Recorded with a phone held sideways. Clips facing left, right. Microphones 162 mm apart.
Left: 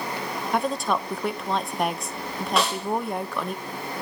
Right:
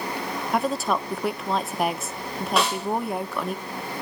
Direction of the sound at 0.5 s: Centre (ahead or behind).